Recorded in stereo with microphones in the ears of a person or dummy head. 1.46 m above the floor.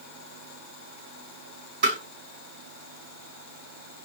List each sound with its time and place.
1.8 s tapping: 60° right (ahead or behind), 3 m